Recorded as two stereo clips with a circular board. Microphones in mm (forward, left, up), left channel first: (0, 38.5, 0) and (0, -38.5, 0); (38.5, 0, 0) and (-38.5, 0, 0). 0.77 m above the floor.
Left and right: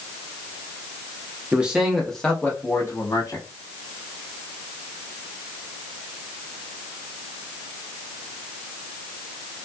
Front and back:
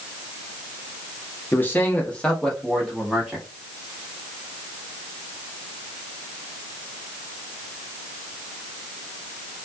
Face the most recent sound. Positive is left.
turn(degrees=100)